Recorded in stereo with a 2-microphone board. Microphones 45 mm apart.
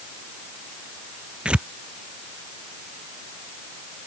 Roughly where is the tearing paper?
Right.